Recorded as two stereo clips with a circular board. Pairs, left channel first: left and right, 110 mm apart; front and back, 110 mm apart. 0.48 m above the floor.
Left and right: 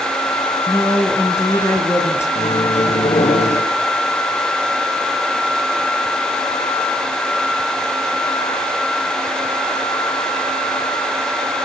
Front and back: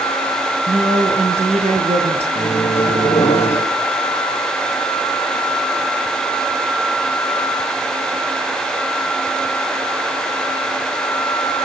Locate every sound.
0.7 s a woman speaking: 155° left, 6 m
2.4 s a microwave: 65° left, 5.5 m